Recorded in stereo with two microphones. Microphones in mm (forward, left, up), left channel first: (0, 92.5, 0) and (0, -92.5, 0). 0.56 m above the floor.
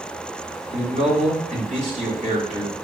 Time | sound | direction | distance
0.7 | a man speaking | 45° right (ahead or behind) | 3 m